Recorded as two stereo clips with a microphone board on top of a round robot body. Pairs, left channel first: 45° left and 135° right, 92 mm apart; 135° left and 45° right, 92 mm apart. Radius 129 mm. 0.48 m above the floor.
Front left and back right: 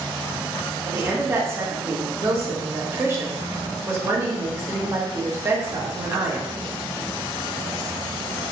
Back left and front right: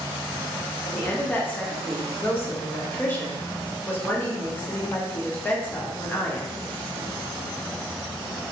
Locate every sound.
0.8 s a woman speaking: 170° right, 0.9 m